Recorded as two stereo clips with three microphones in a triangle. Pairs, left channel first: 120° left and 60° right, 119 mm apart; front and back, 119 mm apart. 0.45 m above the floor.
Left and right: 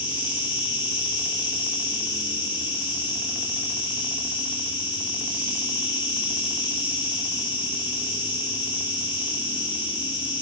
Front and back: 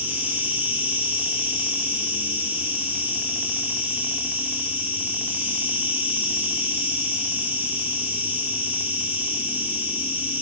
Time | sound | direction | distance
0.0 | an insect | 115° left | 2 m